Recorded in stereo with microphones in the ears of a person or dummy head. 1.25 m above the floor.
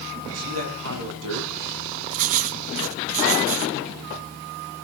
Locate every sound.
0.3 s a man speaking: 85° right, 10 m; by 1.5 s 75° right (ahead or behind), 10 m
2.1 s writing: 40° right (ahead or behind), 1.2 m